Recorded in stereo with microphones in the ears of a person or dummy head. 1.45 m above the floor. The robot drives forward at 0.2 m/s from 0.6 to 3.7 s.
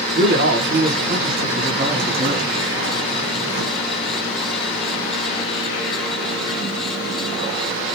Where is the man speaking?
50° right (ahead or behind), 1.1 m; by 2.5 s 40° right (ahead or behind), 1.4 m.